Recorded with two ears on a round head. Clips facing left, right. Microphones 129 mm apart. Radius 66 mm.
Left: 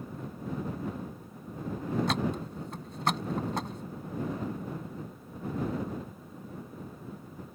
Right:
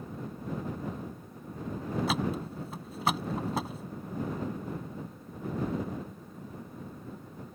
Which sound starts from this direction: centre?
A thud, at 2.1 s.